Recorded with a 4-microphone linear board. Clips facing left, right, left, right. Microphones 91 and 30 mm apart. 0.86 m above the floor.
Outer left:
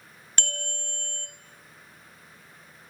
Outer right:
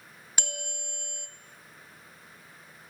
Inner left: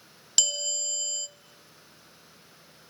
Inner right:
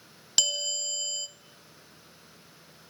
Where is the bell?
10° right (ahead or behind), 0.7 m.